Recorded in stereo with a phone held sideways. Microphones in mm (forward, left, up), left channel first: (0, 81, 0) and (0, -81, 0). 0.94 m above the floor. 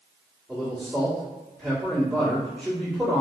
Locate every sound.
0.5 s a man speaking: 5° right (ahead or behind), 1.9 m